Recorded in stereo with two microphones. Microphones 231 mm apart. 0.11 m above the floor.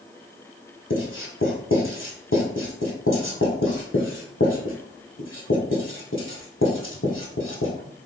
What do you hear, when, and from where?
0.9 s writing: 60° left (ahead or behind), 1.1 m